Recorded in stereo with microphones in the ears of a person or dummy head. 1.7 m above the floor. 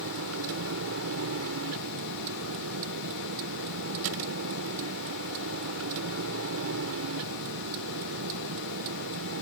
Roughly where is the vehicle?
Right.